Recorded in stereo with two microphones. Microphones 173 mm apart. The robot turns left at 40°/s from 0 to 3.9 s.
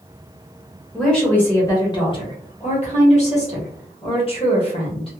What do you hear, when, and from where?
0.9 s a woman speaking: straight behind, 1.1 m; by 5.1 s 60° left, 1.1 m